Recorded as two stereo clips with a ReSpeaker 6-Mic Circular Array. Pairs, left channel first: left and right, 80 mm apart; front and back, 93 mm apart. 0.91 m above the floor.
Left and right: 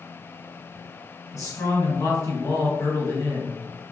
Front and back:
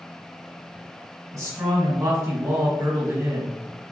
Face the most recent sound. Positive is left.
turn(degrees=130)